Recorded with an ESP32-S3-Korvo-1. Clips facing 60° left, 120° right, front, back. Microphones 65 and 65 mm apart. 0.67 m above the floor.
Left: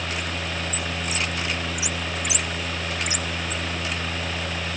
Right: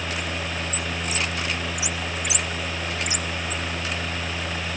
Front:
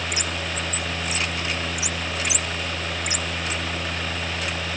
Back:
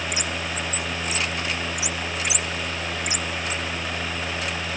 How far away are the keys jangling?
No keys jangling in this recording.